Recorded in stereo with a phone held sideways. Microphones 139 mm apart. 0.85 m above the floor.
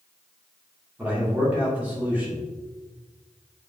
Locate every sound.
1.0 s a man speaking: 10° right (ahead or behind), 2.5 m